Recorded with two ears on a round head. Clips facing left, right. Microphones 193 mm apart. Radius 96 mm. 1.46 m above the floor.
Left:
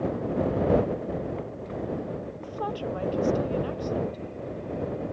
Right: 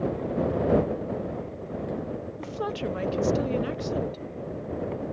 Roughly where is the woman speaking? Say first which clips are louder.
Right 3 dB; right.